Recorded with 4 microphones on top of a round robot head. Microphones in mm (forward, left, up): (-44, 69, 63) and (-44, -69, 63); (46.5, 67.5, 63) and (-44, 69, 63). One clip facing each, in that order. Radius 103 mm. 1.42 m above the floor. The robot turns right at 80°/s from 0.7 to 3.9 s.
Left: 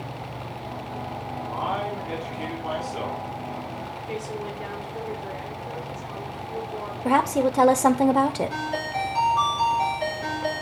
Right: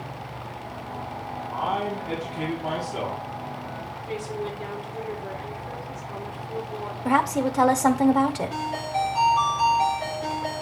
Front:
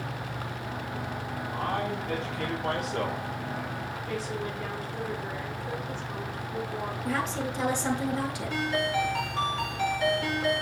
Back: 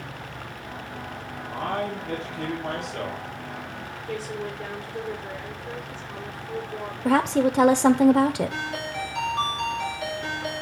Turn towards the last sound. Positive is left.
turn(degrees=5)